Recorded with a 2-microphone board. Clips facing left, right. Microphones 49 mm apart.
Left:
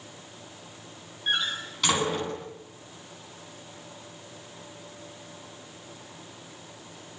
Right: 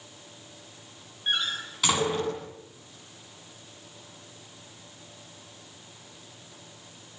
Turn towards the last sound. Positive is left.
turn(degrees=-5)  # may be behind; listen again after turning